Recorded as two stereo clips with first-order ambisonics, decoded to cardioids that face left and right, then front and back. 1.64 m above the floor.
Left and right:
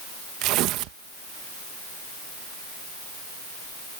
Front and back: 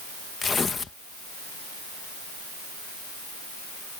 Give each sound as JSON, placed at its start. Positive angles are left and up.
{"t": 0.4, "sound": "tearing paper", "azimuth_deg": -75}